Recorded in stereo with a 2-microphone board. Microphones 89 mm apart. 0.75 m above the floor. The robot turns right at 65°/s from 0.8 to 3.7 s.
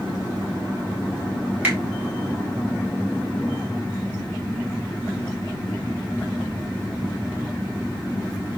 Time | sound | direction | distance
1.6 | a finger snap | 20° right (ahead or behind) | 2.5 m